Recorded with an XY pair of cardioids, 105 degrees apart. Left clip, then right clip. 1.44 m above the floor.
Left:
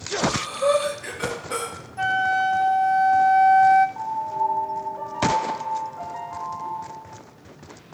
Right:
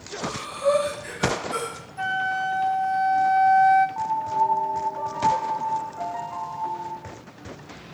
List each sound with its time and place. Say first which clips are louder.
0.2 s breathing: left 2 dB; 65° left, 2.5 m
2.0 s a flute: left 4 dB; 15° left, 0.6 m
4.0 s a piano: right 2 dB; 10° right, 1.1 m